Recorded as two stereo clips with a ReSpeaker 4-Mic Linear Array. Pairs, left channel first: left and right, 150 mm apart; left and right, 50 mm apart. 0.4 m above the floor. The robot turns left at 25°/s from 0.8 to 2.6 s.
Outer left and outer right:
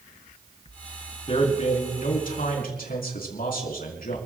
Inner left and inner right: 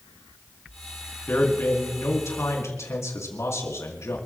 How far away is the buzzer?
I don't hear a buzzer.